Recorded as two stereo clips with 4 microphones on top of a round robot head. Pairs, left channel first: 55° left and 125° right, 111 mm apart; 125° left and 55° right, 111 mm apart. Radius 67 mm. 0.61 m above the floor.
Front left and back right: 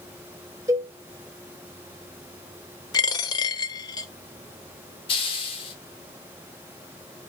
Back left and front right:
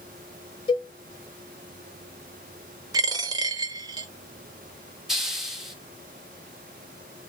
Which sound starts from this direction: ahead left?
A hiss, at 5.1 s.